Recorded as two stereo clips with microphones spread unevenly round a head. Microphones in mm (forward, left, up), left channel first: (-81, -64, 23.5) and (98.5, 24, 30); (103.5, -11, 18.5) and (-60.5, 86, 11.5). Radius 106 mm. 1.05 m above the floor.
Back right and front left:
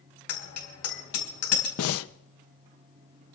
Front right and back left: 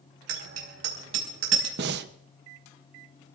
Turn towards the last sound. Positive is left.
turn(degrees=-170)